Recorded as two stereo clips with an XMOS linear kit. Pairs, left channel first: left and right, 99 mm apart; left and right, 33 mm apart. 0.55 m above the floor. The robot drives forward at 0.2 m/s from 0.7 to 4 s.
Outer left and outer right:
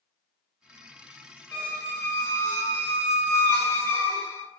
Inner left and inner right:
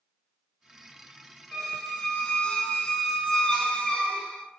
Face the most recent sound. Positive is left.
turn(degrees=25)  # may be behind; listen again after turning